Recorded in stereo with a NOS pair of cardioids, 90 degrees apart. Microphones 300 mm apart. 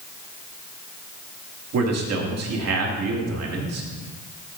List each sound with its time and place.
1.7 s a man speaking: 55° right, 2.5 m